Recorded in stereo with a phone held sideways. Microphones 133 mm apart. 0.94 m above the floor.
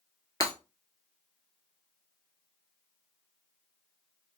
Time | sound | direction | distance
0.4 | breaking glass | 25° left (ahead or behind) | 1.0 m